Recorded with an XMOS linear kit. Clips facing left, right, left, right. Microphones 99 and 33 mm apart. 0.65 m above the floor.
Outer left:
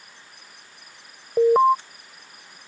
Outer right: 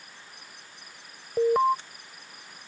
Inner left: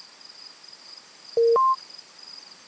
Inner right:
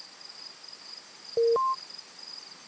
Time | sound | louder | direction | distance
1.4 | an alarm | outer left 6 dB, inner left 6 dB | 30° left (ahead or behind) | ?